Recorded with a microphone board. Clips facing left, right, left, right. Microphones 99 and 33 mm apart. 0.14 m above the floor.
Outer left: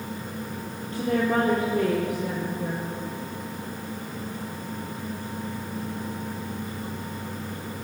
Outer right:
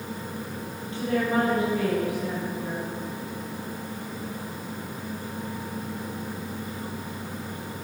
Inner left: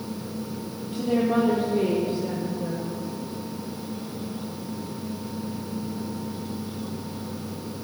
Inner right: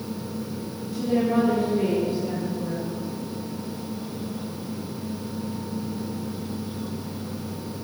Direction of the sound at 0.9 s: 40° left (ahead or behind).